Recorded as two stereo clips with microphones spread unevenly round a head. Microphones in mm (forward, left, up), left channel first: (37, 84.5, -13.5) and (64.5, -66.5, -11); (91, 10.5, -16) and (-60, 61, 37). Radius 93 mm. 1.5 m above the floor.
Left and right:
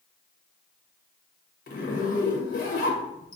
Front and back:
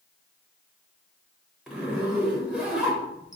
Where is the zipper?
85° left, 0.9 m.